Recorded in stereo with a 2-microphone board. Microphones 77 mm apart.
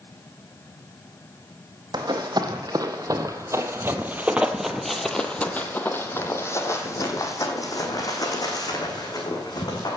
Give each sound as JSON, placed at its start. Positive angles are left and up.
{"t": 1.9, "sound": "running footsteps", "side_deg": -65, "distance_m": 1.7}